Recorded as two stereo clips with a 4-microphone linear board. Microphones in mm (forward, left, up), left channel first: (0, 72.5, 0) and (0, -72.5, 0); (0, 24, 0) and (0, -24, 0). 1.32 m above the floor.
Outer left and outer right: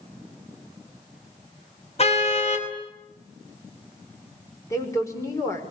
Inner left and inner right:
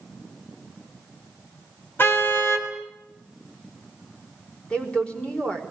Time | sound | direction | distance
2.0 | a car horn | 50° left (ahead or behind) | 4.5 m
4.7 | a woman speaking | 25° left (ahead or behind) | 5.5 m